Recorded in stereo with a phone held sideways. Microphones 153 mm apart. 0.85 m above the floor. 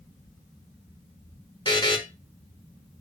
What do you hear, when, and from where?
1.6 s a buzzer: 25° left (ahead or behind), 1.4 m